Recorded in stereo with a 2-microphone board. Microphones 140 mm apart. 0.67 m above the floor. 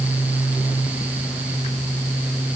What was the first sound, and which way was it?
Only background noise.